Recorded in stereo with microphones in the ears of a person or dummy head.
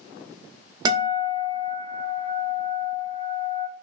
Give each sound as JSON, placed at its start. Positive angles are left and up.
{"t": 0.8, "sound": "a guitar", "side_deg": -25, "distance_m": 1.0}